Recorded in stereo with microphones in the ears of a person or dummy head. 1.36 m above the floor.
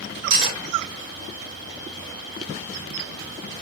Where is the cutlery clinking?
75° right (ahead or behind), 2 m.